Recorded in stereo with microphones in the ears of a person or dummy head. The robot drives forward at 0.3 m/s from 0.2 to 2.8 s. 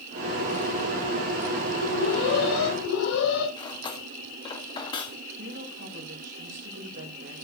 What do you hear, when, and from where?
1.8 s an alarm: 85° left, 9.5 m
3.6 s cutlery clinking: 25° left (ahead or behind), 1.9 m
5.4 s a woman speaking: 60° right (ahead or behind), 4.5 m